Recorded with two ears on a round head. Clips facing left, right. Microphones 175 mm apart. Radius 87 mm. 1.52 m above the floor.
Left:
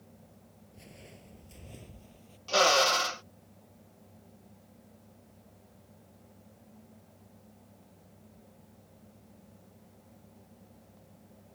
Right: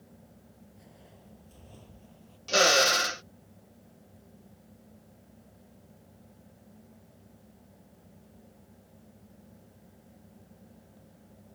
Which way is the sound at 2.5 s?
20° right (ahead or behind).